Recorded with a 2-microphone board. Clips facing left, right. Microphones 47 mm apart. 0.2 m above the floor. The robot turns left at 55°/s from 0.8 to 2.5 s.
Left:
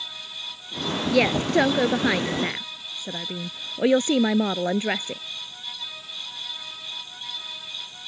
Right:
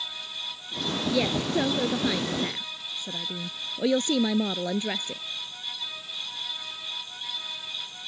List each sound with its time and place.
1.1 s a woman speaking: 55° left (ahead or behind); by 5.2 s 40° left (ahead or behind)